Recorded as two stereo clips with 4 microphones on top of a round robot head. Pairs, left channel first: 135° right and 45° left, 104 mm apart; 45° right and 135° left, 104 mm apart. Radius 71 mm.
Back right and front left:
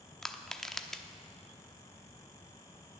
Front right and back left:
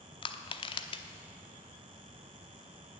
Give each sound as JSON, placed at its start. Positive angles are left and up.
{"t": 0.2, "sound": "crushing", "azimuth_deg": -50, "distance_m": 0.9}